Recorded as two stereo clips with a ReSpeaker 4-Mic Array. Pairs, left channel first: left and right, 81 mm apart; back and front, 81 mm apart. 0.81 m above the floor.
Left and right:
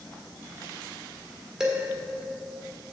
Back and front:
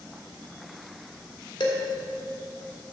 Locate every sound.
1.6 s dishes clattering: 175° right, 1.8 m